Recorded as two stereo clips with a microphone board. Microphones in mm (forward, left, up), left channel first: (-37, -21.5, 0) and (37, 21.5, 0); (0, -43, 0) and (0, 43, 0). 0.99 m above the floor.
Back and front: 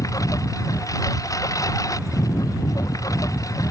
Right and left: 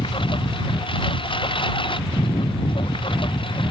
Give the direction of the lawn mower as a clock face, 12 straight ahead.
3 o'clock.